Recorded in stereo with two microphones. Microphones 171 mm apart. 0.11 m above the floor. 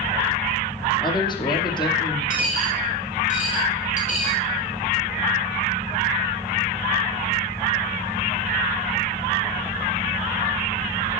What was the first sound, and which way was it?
A woman speaking, 25° left (ahead or behind).